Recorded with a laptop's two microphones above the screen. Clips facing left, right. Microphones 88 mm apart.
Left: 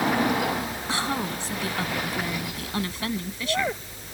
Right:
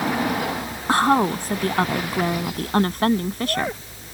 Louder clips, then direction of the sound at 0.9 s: Right 12 dB; 50° right (ahead or behind).